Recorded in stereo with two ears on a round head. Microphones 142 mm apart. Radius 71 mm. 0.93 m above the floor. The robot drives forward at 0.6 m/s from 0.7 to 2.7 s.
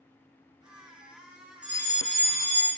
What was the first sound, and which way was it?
A fire alarm, 5° right (ahead or behind).